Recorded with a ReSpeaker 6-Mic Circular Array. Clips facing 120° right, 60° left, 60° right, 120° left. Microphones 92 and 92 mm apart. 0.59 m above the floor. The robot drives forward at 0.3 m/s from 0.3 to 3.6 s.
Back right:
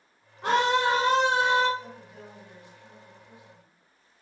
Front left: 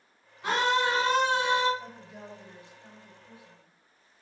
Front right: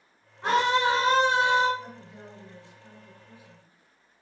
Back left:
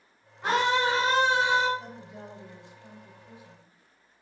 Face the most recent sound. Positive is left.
turn(degrees=125)